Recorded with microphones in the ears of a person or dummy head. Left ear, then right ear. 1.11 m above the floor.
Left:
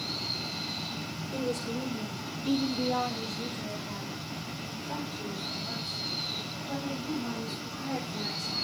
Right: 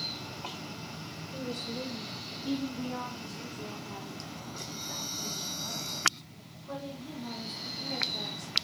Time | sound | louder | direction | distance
1.3 | a woman speaking | left 4 dB | 60° left (ahead or behind) | 1.2 m